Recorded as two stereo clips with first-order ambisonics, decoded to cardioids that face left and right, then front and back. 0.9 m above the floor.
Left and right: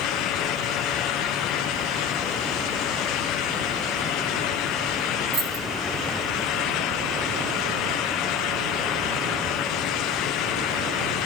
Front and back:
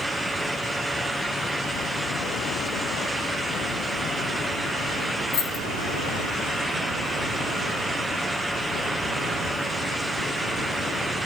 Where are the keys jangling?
45° right, 2.5 m.